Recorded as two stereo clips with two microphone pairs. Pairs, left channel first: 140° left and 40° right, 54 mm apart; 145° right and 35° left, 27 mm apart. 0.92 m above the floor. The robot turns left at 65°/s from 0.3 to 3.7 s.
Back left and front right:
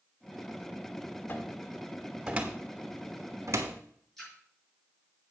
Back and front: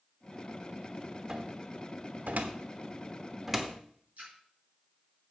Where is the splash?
60° left, 6 m.